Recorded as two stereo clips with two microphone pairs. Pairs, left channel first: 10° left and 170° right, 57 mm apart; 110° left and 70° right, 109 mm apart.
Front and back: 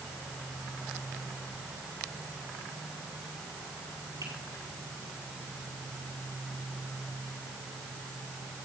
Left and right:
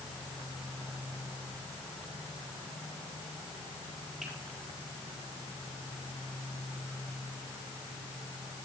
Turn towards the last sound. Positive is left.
turn(degrees=-155)